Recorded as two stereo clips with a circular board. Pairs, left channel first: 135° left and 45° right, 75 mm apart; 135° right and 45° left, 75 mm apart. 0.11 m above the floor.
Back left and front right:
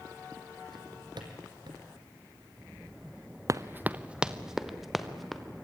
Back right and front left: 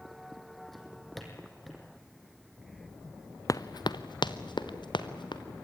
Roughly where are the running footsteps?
Right.